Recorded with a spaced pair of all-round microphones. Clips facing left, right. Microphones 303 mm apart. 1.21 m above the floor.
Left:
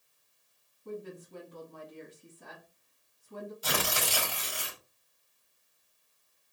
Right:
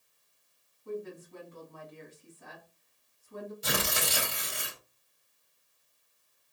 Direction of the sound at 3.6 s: 25° right (ahead or behind).